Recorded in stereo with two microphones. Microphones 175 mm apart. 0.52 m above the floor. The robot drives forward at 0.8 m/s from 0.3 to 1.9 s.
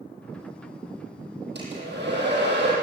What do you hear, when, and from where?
1.6 s a hair dryer: 90° right, 9.5 m; by 2.7 s 85° right, 9.5 m